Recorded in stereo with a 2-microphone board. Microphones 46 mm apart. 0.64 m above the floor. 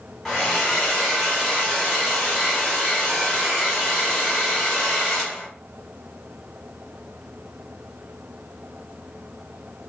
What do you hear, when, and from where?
0.2 s a hair dryer: 5° left (ahead or behind), 1.2 m